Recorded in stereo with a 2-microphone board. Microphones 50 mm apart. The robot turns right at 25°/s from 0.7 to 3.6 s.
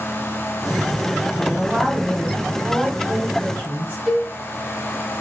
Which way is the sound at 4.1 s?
10° right (ahead or behind).